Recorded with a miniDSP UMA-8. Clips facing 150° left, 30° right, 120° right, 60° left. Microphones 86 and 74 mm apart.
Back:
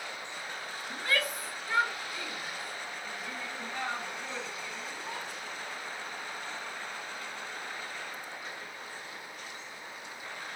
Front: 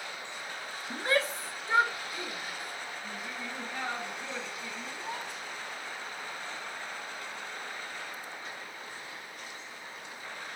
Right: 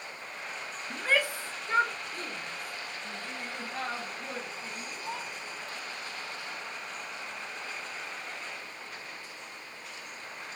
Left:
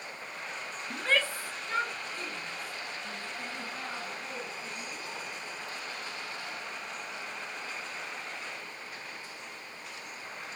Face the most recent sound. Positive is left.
turn(degrees=-110)